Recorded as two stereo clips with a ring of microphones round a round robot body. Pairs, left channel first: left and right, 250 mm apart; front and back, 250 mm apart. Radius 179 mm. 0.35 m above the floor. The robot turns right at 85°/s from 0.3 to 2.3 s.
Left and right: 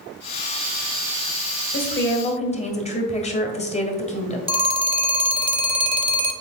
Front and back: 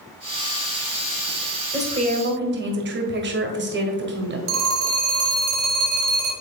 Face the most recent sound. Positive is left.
turn(degrees=-160)